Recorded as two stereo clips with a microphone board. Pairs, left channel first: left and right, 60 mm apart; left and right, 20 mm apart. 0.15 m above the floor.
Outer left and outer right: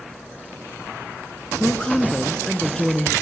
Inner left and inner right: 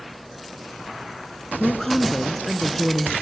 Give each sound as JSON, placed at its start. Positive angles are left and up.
{"t": 1.6, "sound": "a woman speaking", "side_deg": 15, "distance_m": 1.9}